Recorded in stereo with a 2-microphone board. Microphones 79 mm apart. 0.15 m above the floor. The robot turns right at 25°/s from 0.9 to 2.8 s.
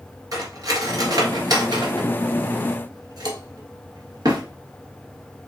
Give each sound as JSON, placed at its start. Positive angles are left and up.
{"t": 0.3, "sound": "cutlery clinking", "side_deg": -50, "distance_m": 1.5}